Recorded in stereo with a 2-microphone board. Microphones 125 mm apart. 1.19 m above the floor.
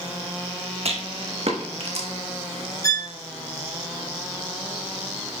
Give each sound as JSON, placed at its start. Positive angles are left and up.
{"t": 0.8, "sound": "a rattle", "side_deg": -55, "distance_m": 1.0}
{"t": 2.8, "sound": "a violin", "side_deg": 25, "distance_m": 0.8}